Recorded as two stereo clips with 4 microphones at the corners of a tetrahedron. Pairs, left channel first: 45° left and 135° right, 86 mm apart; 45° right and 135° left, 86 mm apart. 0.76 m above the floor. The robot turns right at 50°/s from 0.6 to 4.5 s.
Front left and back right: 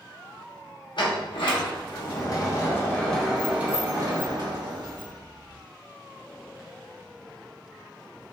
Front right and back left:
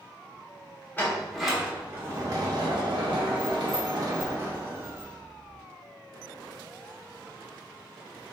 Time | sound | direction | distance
1.0 | a sliding door | 25° left | 0.8 m